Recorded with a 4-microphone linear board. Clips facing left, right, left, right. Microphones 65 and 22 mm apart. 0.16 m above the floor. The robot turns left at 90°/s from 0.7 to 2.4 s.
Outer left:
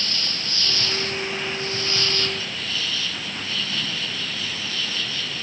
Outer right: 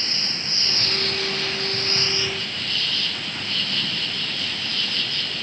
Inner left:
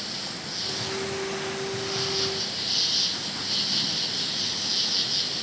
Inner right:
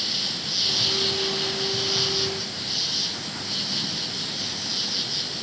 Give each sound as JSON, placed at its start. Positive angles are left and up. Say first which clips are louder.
{"t": 0.0, "sound": "an insect", "louder": "outer left 1 dB, inner right 7 dB", "azimuth_deg": -30}